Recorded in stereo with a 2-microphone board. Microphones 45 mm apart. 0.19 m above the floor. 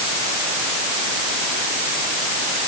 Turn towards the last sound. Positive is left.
No sound to turn to.